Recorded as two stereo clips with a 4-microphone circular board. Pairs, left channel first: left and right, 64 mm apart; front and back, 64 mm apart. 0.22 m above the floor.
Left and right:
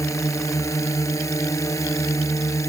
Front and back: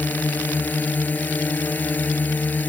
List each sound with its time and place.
0.0 s a drone: 60° left